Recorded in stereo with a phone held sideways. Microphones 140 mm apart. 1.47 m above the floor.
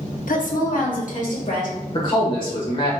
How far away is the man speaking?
About 1.4 m.